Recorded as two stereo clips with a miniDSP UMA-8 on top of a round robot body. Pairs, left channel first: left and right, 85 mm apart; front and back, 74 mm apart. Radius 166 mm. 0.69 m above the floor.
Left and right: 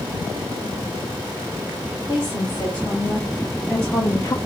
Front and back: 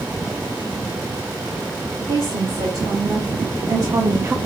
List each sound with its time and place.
2.1 s a woman speaking: 175° left, 3 m; by 4.4 s 120° left, 0.6 m